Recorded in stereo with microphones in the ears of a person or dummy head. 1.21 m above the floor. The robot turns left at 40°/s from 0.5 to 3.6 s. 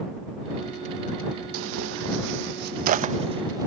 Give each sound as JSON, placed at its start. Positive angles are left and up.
{"t": 1.5, "sound": "tearing paper", "side_deg": -70}